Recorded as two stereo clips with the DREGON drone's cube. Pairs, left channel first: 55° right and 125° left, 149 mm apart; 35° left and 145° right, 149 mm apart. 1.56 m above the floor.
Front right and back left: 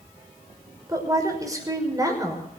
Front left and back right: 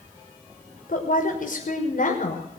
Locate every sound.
0.9 s a woman speaking: 60° left, 5.5 m